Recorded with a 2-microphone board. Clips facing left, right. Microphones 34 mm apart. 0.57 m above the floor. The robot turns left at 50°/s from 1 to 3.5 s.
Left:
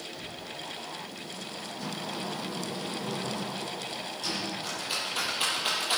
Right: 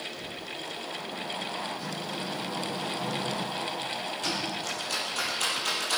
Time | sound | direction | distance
0.2 | a cupboard door | 85° right | 7 m
1.8 | a sliding door | 30° right | 4 m
4.6 | a rattle | 15° left (ahead or behind) | 6.5 m